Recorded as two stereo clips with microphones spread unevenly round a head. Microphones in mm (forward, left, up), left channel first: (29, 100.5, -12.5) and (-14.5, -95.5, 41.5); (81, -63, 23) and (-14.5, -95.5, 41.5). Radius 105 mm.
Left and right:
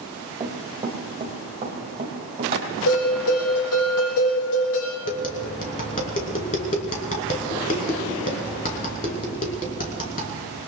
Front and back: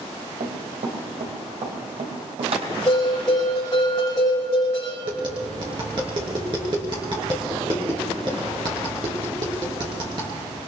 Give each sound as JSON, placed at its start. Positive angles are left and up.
{"t": 0.4, "sound": "running footsteps", "azimuth_deg": -175, "distance_m": 3.5}
{"t": 2.9, "sound": "a bell", "azimuth_deg": 95, "distance_m": 6.5}
{"t": 5.0, "sound": "tapping", "azimuth_deg": 135, "distance_m": 3.0}